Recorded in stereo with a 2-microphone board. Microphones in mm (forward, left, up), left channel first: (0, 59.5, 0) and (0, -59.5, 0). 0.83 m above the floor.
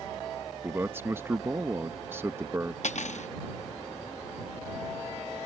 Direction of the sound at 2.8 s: 80° left.